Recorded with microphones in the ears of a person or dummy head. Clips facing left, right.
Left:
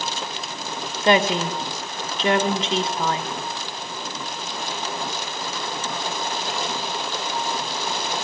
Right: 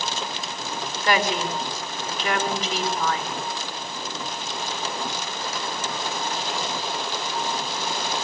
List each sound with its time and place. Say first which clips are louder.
1.0 s a woman speaking: left 5 dB; 25° left (ahead or behind), 1.8 m